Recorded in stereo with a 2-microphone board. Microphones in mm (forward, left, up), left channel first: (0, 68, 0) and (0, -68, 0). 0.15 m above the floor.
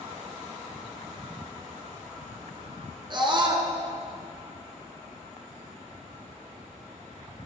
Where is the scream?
35° right (ahead or behind), 1.7 m.